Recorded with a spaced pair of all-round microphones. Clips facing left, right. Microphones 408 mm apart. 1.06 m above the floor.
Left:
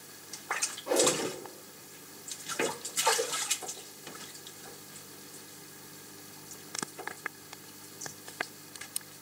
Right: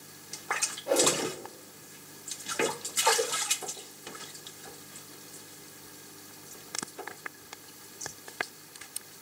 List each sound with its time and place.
0.9 s a whoosh: 15° left (ahead or behind), 1.7 m